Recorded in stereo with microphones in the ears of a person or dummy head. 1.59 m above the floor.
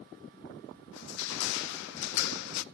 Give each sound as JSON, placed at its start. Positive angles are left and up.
{"t": 0.9, "sound": "crushing", "side_deg": 70, "distance_m": 0.5}